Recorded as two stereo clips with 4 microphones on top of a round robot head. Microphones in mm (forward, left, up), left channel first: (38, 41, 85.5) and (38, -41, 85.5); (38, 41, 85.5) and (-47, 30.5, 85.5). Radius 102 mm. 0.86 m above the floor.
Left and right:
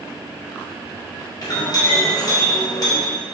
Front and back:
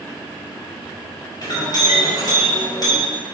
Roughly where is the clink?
Ahead left.